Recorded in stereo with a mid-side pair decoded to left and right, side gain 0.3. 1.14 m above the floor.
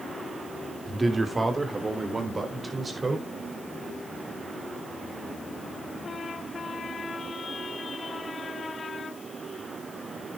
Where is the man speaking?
35° right, 3.5 m; by 3.2 s 40° right, 5 m.